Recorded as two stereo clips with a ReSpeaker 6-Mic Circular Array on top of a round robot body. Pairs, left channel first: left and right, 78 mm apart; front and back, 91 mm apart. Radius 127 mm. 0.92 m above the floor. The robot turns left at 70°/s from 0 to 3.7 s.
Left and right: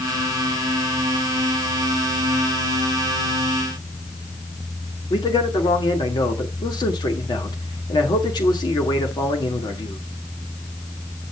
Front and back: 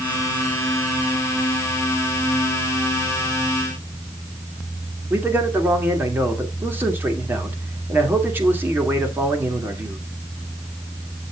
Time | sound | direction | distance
5.1 | a man speaking | 115° left | 2 m